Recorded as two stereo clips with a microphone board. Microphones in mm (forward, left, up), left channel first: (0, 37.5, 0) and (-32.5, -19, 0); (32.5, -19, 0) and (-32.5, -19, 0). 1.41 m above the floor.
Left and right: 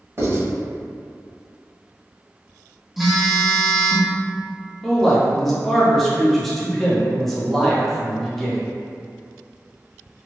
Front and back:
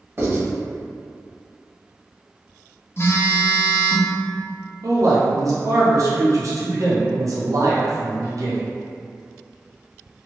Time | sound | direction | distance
0.2 | writing | 145° right | 1.6 m
3.0 | a phone buzzing | 35° right | 0.5 m
4.8 | a man speaking | 145° left | 0.7 m